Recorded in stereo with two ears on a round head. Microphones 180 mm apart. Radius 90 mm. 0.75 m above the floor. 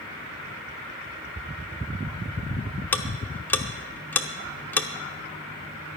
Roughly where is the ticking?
Centre.